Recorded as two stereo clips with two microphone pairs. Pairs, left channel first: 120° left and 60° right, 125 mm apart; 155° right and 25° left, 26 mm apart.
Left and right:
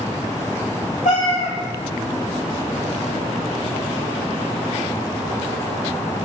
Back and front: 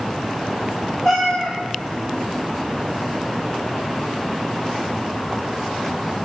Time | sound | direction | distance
1.1 | a cat meowing | 140° left | 1.6 m